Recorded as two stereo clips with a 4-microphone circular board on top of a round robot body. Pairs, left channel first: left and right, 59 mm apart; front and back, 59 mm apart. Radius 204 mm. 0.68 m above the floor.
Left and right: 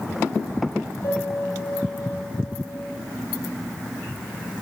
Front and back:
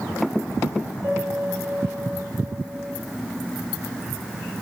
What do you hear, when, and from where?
1.0 s a piano: 120° left, 4 m